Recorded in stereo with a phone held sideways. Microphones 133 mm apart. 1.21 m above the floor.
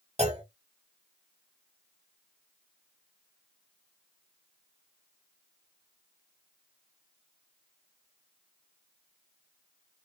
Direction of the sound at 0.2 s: 50° right (ahead or behind).